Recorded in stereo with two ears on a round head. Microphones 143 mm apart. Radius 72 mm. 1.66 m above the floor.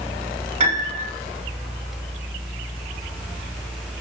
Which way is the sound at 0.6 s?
45° right (ahead or behind).